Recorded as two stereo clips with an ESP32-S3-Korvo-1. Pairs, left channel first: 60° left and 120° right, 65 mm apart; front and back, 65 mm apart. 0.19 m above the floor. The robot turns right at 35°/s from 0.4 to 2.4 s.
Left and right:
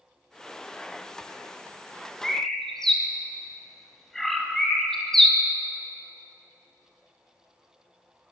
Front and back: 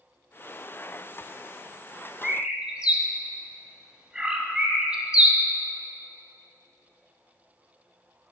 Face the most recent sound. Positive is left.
turn(degrees=130)